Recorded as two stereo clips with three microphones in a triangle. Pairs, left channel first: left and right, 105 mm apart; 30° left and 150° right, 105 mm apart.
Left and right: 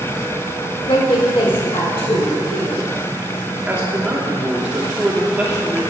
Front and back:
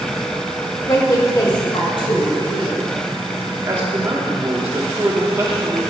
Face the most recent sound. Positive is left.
turn(degrees=-155)